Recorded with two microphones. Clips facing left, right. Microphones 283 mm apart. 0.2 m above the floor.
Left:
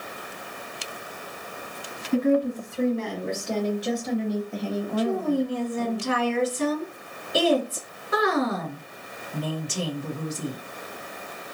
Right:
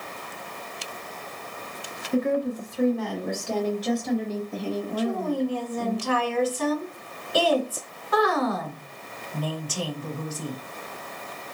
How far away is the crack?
No crack in this recording.